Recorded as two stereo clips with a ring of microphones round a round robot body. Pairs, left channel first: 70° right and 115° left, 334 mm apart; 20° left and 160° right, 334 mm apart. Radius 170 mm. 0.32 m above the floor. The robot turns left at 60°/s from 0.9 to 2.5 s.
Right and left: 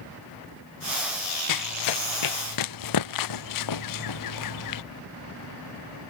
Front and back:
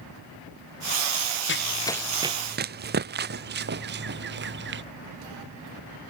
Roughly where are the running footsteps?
Ahead right.